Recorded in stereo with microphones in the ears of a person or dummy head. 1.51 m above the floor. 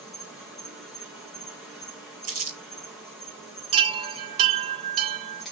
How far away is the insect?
About 3.5 m.